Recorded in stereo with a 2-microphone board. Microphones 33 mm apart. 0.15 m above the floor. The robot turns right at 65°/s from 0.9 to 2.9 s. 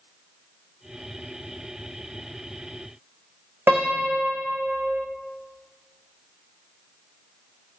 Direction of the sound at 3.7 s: 80° right.